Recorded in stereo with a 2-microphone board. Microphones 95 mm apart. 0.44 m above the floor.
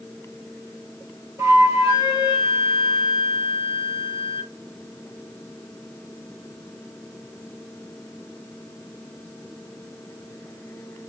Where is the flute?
35° right (ahead or behind), 1.1 m.